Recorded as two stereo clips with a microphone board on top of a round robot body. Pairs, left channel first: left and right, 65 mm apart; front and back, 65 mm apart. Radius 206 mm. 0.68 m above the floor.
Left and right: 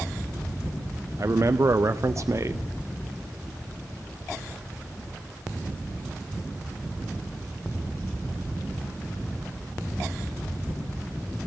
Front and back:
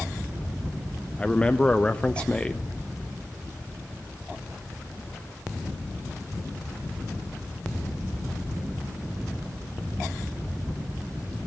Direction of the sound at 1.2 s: 70° right.